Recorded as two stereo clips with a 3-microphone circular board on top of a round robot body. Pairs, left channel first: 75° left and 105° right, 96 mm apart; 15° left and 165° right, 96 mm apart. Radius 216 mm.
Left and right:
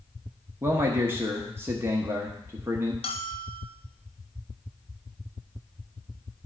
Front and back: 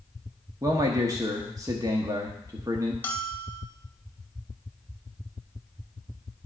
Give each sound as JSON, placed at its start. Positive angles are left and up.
{"t": 0.6, "sound": "a man speaking", "azimuth_deg": -150, "distance_m": 1.1}
{"t": 3.0, "sound": "a bell", "azimuth_deg": 85, "distance_m": 1.3}